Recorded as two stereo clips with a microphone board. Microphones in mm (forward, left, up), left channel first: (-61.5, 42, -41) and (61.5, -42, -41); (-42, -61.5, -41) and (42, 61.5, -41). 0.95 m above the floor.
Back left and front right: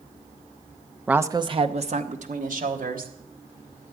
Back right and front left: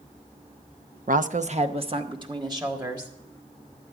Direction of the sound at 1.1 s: 50° left.